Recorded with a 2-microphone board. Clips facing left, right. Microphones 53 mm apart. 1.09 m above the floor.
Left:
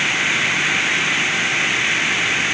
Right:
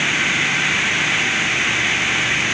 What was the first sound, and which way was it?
Only background noise.